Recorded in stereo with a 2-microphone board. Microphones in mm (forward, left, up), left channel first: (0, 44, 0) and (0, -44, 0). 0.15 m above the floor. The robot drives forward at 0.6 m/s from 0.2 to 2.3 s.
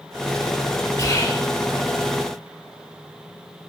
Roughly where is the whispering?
Left.